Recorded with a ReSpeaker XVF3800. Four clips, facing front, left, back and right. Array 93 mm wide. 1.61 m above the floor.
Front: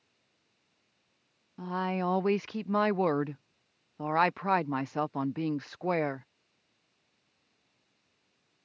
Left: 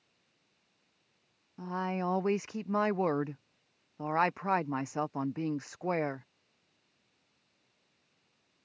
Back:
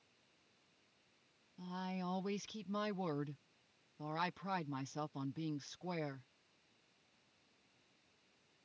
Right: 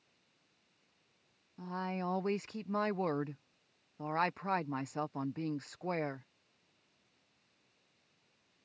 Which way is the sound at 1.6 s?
20° left.